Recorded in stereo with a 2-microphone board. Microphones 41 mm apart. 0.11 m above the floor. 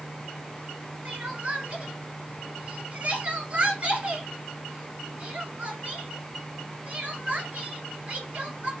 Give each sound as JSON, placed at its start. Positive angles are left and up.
{"t": 1.1, "sound": "crying", "side_deg": -30, "distance_m": 1.4}